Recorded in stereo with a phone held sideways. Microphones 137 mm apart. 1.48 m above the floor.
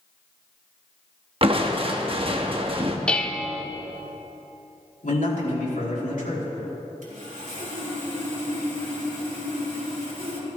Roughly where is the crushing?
Right.